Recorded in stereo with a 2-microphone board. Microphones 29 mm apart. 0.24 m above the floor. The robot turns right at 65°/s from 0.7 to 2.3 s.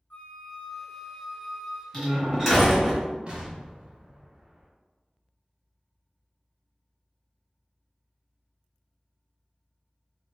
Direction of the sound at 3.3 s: 30° right (ahead or behind).